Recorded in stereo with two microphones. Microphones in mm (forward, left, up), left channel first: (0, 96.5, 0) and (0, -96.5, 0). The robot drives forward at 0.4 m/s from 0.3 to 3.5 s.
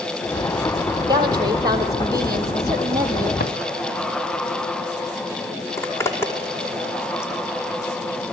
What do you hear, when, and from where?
1.1 s a woman speaking: 20° right (ahead or behind), 4.5 m; by 3.3 s 15° right (ahead or behind), 5 m
3.4 s a drawer: 55° left (ahead or behind), 1.8 m
5.8 s a zipper: 15° left (ahead or behind), 4.5 m